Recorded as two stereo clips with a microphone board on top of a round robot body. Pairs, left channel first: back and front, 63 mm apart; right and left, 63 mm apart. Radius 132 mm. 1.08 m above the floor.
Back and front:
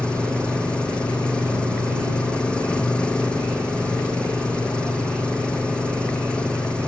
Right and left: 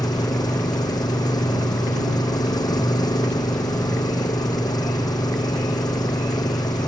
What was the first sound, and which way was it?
An engine running, 105° right.